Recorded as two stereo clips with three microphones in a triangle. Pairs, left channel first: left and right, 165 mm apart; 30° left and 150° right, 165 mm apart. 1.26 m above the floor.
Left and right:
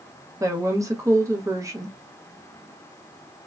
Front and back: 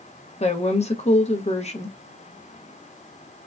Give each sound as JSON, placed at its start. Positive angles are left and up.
{"t": 0.4, "sound": "a woman speaking", "azimuth_deg": -20, "distance_m": 0.8}